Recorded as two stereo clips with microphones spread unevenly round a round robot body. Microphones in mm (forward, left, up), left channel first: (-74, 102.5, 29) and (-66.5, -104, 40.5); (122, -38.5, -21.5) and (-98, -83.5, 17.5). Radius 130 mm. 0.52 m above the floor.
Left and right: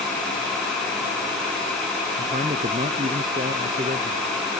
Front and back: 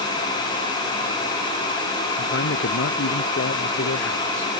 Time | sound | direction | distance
2.2 | a man speaking | 20° right | ?